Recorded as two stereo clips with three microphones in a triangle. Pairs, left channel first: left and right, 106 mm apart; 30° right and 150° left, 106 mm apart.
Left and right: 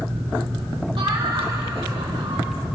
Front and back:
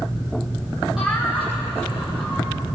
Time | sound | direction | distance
1.0 | laughter | 125° right | 6.5 m